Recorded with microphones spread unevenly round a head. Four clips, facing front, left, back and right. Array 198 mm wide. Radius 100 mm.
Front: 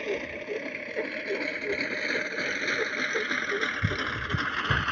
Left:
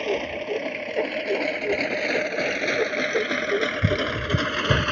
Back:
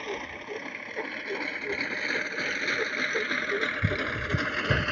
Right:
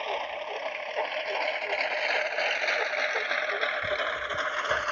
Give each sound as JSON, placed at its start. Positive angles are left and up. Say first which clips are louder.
{"t": 0.0, "sound": "a lawn mower", "louder": "left 6 dB, front 4 dB", "azimuth_deg": 75}